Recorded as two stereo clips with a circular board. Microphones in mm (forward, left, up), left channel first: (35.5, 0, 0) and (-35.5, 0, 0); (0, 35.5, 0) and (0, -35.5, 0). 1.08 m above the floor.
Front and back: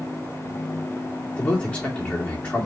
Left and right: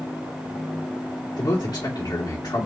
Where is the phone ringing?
No phone ringing in this recording.